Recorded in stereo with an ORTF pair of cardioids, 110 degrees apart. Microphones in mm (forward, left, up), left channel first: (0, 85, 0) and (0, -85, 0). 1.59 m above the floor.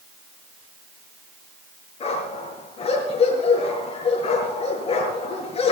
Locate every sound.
2.0 s a dog barking: 35° left, 7 m